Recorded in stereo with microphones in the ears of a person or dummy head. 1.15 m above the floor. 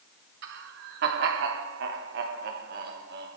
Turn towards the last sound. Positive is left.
turn(degrees=-55)  # may be behind; listen again after turning